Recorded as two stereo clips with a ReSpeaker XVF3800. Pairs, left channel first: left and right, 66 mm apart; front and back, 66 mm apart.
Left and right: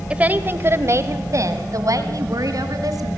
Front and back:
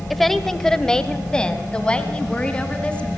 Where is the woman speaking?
85° right, 1.4 m; by 3.1 s 75° right, 4 m.